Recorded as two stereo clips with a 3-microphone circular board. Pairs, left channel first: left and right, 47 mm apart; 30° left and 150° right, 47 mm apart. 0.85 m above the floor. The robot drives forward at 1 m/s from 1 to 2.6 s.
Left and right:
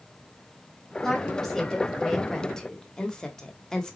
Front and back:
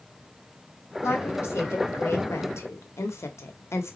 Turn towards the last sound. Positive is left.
turn(degrees=15)